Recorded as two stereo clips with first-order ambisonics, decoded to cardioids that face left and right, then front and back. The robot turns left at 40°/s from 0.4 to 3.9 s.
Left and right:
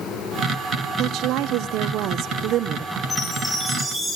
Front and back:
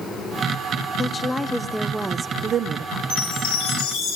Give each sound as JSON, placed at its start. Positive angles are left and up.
{"t": 1.0, "sound": "a woman speaking", "azimuth_deg": -60, "distance_m": 0.7}
{"t": 3.1, "sound": "a chime", "azimuth_deg": 10, "distance_m": 10.0}